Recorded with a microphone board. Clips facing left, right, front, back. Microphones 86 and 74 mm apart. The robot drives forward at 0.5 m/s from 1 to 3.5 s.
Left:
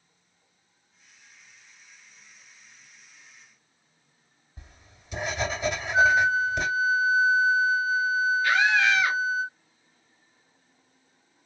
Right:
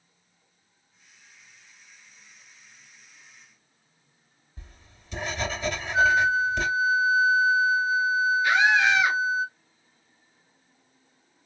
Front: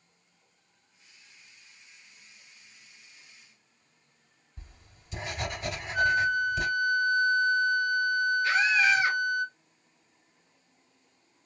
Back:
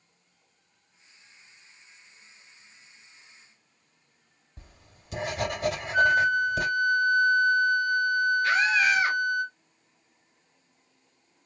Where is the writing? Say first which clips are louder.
Even, back 2 dB; 165° left, 2.5 m.